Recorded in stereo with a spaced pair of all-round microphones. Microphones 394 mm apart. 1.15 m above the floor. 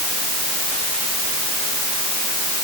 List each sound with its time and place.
Only background noise.